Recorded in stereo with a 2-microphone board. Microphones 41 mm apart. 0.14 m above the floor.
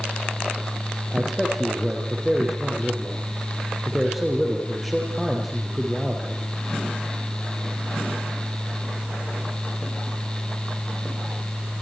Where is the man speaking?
Centre (ahead or behind), 4 m.